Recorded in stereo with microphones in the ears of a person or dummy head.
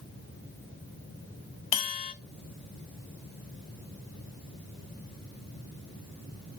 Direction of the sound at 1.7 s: 40° left (ahead or behind).